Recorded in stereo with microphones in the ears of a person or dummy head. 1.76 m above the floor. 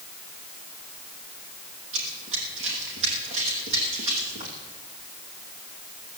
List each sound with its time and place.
1.9 s running footsteps: 40° right (ahead or behind), 3.5 m